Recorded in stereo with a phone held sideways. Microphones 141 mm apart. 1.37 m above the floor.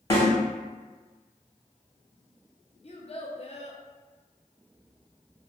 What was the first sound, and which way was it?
A snare drum, 25° left (ahead or behind).